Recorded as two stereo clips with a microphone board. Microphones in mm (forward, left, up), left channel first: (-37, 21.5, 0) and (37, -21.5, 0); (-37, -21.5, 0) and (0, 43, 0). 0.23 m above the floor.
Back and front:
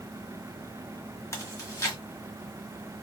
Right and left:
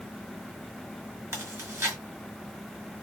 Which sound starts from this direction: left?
Chewing, at 1.3 s.